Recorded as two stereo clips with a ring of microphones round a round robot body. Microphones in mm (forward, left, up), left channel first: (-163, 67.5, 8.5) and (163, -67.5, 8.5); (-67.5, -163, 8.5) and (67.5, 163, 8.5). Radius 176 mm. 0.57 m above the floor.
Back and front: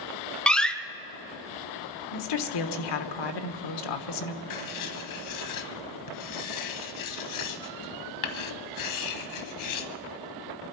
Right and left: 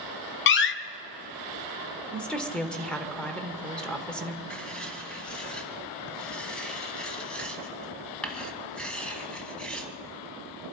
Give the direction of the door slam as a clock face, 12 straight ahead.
4 o'clock.